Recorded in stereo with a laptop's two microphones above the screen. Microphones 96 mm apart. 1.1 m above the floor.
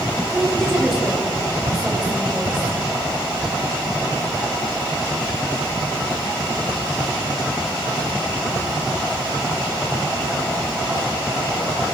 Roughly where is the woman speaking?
Centre.